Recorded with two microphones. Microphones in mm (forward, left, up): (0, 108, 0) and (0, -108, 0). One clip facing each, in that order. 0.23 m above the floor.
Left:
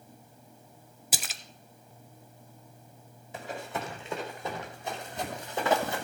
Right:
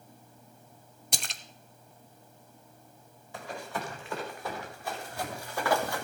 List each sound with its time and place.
1.1 s a splash: 5° left (ahead or behind), 0.5 m
3.3 s running footsteps: 20° left (ahead or behind), 3.5 m